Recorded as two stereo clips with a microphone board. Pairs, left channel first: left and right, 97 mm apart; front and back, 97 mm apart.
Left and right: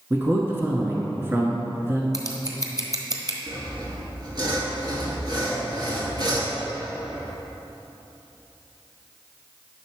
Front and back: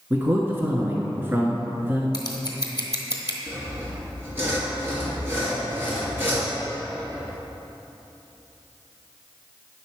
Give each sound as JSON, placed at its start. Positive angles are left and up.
{"t": 0.1, "sound": "a man speaking", "azimuth_deg": -135, "distance_m": 1.3}
{"t": 2.1, "sound": "scissors", "azimuth_deg": -40, "distance_m": 1.1}
{"t": 3.5, "sound": "sawing", "azimuth_deg": -120, "distance_m": 2.5}